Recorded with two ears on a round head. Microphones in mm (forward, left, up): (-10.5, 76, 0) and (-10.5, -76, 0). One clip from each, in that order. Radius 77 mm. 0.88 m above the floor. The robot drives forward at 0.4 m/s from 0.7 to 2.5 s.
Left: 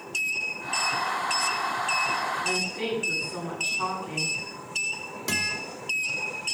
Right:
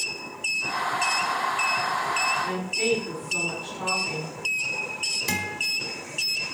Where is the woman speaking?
35° left (ahead or behind), 7.5 m.